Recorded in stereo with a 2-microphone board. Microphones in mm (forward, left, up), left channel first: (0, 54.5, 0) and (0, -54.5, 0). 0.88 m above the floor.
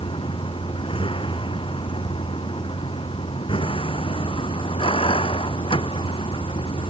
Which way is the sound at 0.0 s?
55° left (ahead or behind).